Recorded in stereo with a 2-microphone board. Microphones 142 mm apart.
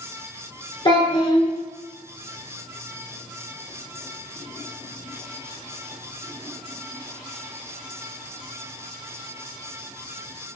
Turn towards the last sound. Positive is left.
turn(degrees=30)  # may be behind; listen again after turning